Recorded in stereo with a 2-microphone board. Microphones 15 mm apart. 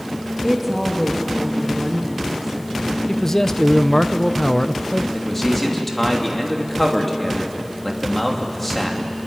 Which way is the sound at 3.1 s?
25° left (ahead or behind).